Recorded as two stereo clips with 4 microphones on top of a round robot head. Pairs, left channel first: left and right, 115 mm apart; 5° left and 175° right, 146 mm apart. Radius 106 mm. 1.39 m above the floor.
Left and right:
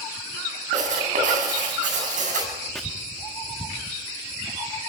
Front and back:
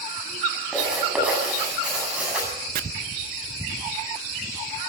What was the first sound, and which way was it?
Writing, 90° right.